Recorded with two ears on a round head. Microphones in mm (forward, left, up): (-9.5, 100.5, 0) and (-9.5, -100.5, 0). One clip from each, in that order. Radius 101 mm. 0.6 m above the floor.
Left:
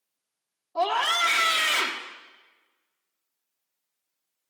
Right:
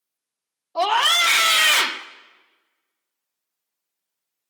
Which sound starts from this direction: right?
A scream, at 0.8 s.